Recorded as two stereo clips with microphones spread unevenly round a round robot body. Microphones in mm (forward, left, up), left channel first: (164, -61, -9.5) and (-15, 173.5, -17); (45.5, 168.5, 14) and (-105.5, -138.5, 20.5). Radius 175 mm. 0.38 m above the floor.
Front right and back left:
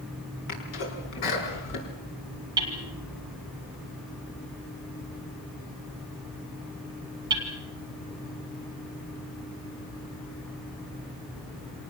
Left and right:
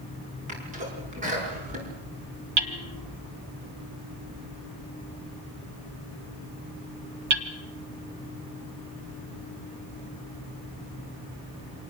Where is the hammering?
155° right, 1.7 m.